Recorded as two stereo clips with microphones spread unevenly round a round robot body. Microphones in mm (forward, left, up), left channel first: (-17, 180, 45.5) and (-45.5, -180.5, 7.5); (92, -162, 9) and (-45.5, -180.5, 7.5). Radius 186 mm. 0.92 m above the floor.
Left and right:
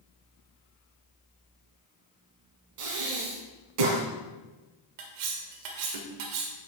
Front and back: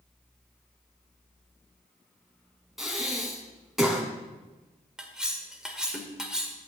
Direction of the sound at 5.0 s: 85° right.